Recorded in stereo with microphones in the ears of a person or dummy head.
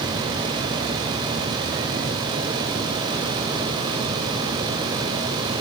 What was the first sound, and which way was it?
Only background noise.